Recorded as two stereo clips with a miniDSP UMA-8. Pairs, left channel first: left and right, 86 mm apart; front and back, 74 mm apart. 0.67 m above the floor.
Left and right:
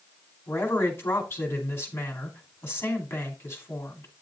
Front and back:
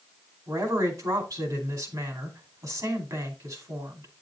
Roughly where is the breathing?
No breathing in this recording.